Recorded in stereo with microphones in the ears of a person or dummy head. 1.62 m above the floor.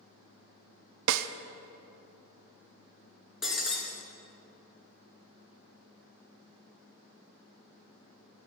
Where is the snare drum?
85° right, 0.5 m.